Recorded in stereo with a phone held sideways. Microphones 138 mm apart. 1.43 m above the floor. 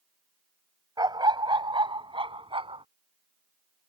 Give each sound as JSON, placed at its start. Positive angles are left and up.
{"t": 1.0, "sound": "a dog barking", "side_deg": -30}